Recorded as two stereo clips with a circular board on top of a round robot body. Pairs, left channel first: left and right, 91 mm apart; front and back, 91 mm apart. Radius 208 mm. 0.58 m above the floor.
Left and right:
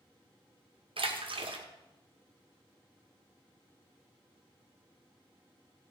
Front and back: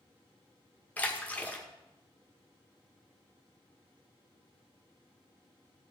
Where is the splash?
75° right, 1.9 m.